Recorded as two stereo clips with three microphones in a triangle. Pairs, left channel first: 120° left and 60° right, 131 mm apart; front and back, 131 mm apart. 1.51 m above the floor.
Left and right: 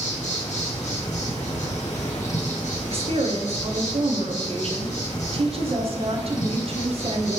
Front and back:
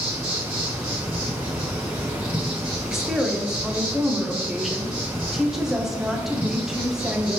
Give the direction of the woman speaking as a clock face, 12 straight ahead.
3 o'clock.